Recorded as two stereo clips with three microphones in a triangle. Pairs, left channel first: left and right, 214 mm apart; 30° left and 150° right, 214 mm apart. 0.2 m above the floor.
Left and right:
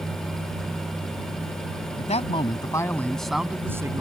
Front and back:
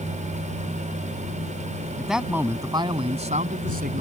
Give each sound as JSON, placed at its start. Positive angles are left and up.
{"t": 2.0, "sound": "a man speaking", "azimuth_deg": 120}